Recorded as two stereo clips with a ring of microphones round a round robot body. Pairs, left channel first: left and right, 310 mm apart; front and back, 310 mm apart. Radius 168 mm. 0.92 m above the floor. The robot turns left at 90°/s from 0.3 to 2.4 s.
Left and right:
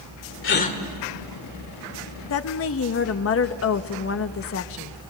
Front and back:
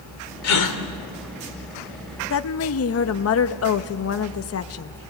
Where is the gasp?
40° left, 1.8 m; by 0.8 s 15° left, 1.8 m.